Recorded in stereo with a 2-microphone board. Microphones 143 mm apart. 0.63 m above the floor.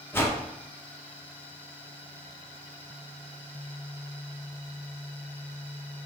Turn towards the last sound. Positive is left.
turn(degrees=15)  # may be behind; listen again after turning